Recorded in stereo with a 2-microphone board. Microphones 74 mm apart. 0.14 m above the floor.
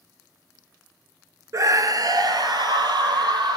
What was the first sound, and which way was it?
A scream, 45° right (ahead or behind).